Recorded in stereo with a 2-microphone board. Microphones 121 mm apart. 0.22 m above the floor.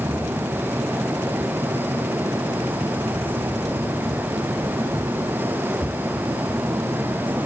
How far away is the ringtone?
I don't hear a ringtone.